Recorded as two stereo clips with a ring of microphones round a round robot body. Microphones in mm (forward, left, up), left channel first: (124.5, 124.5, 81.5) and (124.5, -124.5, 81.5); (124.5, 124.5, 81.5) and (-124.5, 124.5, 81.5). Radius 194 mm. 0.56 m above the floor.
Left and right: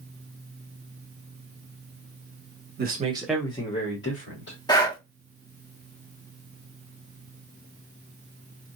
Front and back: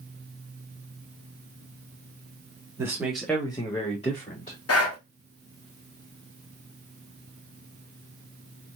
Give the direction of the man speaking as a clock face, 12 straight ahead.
4 o'clock.